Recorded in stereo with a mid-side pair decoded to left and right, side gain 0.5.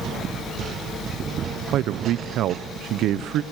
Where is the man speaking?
70° right, 0.8 m.